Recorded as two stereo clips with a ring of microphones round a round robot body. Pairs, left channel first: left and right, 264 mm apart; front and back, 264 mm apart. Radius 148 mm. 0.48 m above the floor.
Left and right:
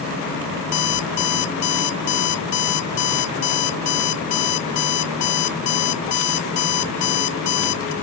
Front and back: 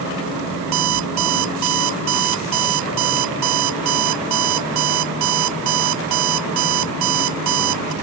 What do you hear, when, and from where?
0.6 s an alarm clock: 145° left